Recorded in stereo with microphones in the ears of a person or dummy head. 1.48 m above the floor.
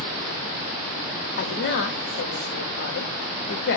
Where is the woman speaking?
55° left (ahead or behind), 0.8 m.